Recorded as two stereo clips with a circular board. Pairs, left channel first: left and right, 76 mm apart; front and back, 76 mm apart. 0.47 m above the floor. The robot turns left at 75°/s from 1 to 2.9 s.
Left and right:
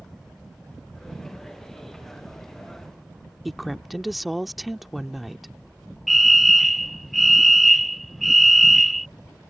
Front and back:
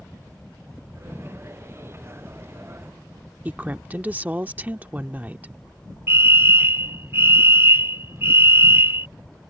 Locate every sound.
3.5 s a woman speaking: straight behind
6.1 s a fire alarm: straight behind